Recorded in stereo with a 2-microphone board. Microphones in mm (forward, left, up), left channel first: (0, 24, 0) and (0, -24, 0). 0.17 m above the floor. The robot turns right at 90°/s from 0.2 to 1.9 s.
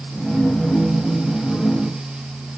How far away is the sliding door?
No sliding door in this recording.